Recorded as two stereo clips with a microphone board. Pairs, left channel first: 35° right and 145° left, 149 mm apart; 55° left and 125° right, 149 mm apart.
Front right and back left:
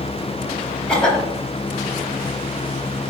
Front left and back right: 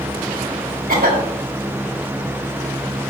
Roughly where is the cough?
Behind right.